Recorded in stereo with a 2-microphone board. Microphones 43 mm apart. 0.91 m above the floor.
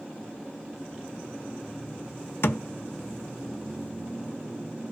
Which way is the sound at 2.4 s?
70° left (ahead or behind).